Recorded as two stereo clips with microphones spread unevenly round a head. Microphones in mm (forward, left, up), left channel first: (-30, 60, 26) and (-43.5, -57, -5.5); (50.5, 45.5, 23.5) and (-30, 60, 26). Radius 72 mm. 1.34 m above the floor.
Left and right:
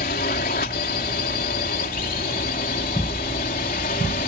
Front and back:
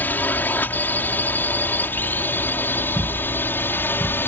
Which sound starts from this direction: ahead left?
A drone, at 0.0 s.